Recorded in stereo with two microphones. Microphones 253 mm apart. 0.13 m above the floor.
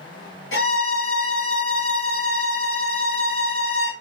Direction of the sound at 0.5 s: 55° left (ahead or behind).